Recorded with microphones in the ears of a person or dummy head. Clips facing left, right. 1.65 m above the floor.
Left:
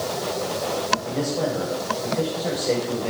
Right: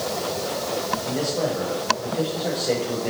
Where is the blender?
I don't hear a blender.